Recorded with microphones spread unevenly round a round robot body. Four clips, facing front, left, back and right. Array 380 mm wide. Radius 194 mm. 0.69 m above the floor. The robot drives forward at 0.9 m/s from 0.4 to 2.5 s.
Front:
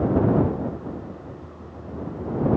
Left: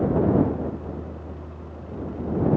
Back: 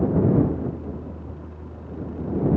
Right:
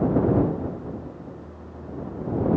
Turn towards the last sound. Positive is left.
No sound to turn to.